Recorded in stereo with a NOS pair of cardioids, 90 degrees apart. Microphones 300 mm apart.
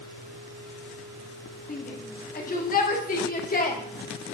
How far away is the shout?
About 2.0 m.